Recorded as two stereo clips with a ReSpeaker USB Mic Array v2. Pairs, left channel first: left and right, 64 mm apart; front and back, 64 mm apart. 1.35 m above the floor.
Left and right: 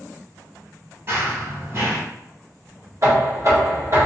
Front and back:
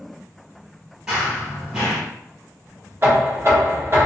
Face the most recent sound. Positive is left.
turn(degrees=-125)